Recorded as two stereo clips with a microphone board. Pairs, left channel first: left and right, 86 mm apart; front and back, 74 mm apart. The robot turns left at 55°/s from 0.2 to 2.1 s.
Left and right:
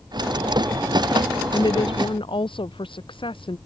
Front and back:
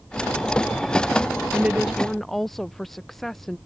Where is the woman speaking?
120° left; by 3.6 s 85° left.